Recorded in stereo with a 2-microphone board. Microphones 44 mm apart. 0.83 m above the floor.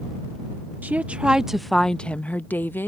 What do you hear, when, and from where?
0.8 s a woman speaking: 40° right (ahead or behind); by 2.9 s 50° left (ahead or behind)